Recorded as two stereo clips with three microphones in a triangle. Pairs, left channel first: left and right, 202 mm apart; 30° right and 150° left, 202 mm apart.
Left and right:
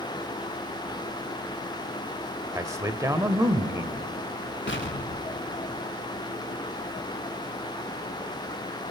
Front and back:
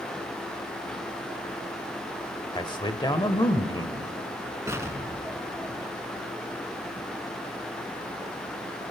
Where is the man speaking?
45° right, 1.0 m.